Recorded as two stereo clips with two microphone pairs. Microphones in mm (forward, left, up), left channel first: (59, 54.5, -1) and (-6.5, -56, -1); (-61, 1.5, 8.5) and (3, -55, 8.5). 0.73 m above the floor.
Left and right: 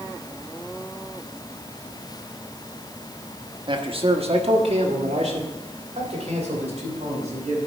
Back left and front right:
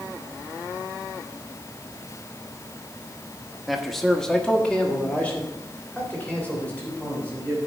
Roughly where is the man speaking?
Behind right.